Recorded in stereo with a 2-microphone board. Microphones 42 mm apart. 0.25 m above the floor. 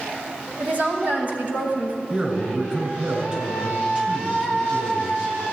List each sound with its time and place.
0.6 s a woman speaking: 40° right (ahead or behind), 1.3 m
2.1 s a man speaking: 30° right (ahead or behind), 2.5 m